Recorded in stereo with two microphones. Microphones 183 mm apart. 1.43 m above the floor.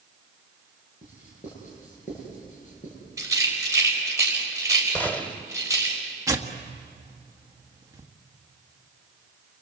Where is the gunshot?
10° left (ahead or behind), 1.4 m.